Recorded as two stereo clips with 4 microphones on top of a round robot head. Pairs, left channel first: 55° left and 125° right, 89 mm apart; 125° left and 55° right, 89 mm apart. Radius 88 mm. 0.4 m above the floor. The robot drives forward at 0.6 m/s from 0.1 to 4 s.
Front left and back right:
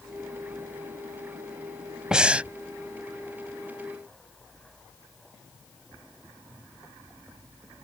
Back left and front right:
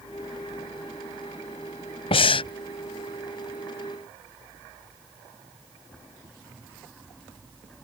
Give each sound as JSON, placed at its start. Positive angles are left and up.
{"t": 2.1, "sound": "breathing", "azimuth_deg": 150}